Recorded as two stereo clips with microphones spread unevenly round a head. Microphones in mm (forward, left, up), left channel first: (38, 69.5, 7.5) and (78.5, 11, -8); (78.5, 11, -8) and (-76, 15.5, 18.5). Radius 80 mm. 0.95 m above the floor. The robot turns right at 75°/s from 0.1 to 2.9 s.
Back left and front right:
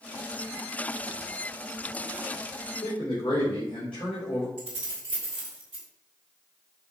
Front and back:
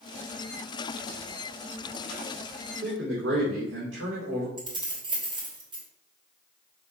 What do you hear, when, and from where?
2.8 s a man speaking: 160° left, 3 m; by 4.5 s 170° left, 3 m
4.6 s keys jangling: 115° right, 2.5 m